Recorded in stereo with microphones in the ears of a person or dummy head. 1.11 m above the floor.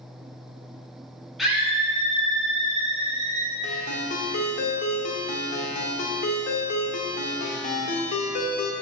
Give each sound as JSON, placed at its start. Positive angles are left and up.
{"t": 1.4, "sound": "a scream", "side_deg": 0, "distance_m": 1.1}
{"t": 3.6, "sound": "a ringtone", "side_deg": 50, "distance_m": 1.3}